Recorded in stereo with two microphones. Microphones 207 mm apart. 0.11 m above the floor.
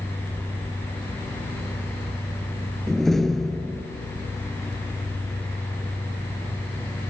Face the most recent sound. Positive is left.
turn(degrees=0)  # may be behind; listen again after turning